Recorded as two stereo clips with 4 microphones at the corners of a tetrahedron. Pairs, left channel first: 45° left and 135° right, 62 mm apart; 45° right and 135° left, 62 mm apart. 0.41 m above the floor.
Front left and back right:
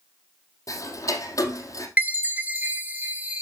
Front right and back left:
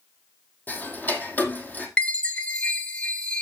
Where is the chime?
100° right, 1.3 m.